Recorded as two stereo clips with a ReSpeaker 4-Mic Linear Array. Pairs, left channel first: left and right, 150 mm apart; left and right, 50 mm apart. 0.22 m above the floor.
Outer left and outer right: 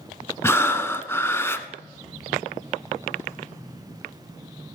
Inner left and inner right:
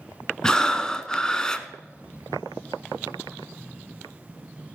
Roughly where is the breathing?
Centre.